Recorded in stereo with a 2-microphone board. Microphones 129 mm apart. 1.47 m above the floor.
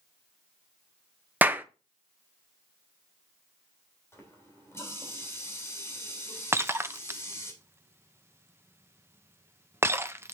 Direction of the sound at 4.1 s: 20° left (ahead or behind).